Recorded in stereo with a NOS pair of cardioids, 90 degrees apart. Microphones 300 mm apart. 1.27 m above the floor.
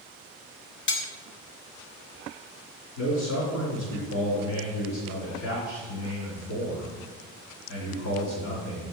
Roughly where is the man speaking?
Left.